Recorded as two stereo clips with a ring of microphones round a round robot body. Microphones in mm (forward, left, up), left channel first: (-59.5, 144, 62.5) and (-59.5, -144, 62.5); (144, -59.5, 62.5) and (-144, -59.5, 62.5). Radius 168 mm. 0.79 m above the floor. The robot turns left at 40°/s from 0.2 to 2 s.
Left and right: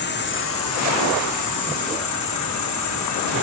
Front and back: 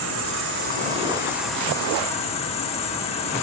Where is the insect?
140° left, 2 m; by 3.4 s 70° left, 2 m.